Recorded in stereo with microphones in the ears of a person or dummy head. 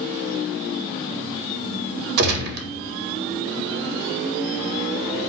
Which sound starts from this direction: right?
A gunshot, at 2.2 s.